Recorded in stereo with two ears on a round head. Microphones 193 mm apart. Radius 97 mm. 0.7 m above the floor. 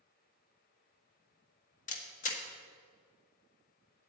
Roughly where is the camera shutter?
Left.